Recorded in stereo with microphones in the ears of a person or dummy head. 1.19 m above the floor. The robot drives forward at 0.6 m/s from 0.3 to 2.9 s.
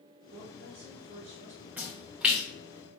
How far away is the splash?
About 0.7 m.